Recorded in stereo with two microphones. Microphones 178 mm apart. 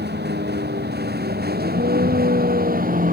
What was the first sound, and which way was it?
A vehicle, 70° right (ahead or behind).